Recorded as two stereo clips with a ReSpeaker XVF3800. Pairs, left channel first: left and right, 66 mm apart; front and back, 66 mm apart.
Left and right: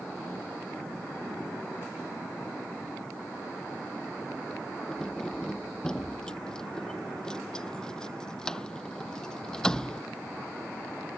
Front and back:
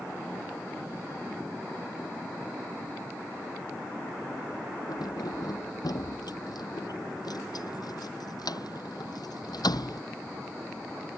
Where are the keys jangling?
10° left.